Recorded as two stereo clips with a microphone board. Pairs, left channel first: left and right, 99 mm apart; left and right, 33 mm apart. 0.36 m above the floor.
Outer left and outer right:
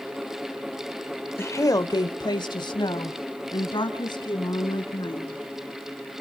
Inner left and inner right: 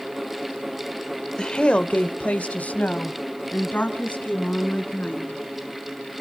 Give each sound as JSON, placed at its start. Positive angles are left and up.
{"t": 1.4, "sound": "a woman speaking", "side_deg": 25, "distance_m": 0.9}